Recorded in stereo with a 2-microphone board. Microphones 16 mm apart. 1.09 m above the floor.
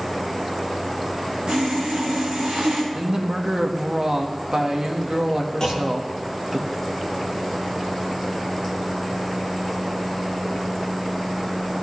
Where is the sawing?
85° right, 5 m.